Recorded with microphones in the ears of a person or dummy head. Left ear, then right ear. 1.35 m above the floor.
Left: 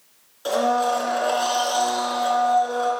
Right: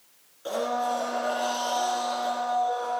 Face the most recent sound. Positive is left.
turn(degrees=30)  # may be behind; listen again after turning